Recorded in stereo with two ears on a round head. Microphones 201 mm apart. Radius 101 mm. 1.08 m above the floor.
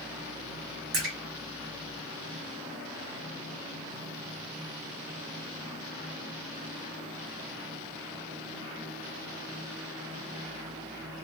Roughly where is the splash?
Right.